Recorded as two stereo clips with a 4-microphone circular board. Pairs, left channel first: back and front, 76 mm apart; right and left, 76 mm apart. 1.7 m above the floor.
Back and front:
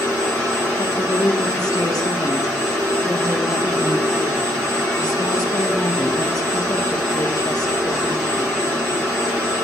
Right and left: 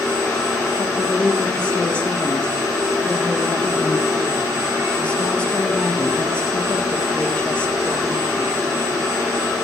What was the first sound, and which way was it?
A woman speaking, 160° right.